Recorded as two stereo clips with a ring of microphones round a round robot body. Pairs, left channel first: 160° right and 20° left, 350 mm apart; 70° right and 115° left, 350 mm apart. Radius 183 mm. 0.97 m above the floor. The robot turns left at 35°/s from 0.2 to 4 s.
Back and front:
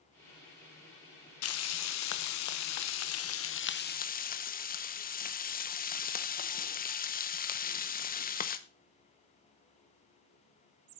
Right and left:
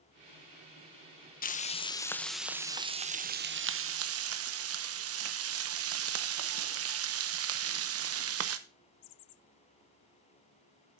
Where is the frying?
125° right, 0.8 m; by 8.6 s 145° left, 0.8 m.